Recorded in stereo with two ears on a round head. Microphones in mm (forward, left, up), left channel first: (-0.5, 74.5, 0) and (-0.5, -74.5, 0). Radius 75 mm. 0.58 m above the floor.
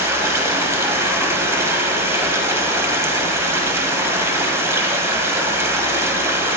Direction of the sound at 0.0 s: 15° right (ahead or behind).